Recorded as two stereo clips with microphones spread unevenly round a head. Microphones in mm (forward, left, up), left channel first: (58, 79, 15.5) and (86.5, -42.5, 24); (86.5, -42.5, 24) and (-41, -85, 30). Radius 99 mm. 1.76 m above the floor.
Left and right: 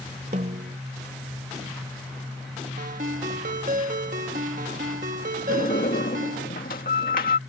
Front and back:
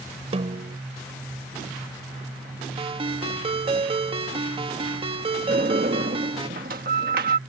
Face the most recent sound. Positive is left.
turn(degrees=150)